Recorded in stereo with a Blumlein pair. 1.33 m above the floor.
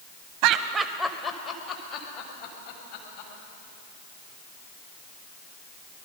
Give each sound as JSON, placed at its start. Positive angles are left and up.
{"t": 0.4, "sound": "laughter", "azimuth_deg": -50, "distance_m": 0.8}